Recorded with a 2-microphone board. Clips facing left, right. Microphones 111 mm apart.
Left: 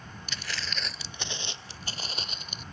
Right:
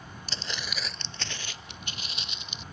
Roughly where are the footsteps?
Right.